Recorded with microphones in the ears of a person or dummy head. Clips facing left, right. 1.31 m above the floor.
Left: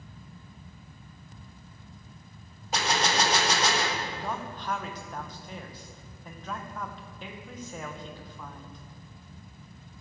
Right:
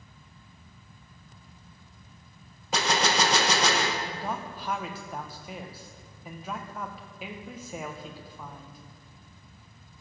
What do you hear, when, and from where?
2.7 s a gunshot: 75° right (ahead or behind), 0.9 m
4.0 s a man speaking: 10° right (ahead or behind), 0.7 m